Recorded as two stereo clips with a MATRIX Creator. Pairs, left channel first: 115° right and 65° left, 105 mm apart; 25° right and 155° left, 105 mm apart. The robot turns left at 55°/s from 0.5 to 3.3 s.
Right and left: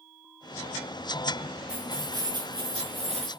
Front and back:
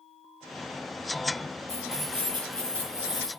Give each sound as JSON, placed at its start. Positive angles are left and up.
{"t": 1.7, "sound": "keys jangling", "azimuth_deg": 150, "distance_m": 4.0}